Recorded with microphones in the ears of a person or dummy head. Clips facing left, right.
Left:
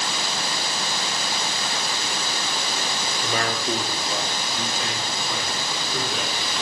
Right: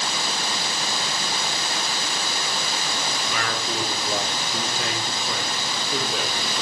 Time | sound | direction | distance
3.2 | a man speaking | 40° left (ahead or behind) | 0.9 m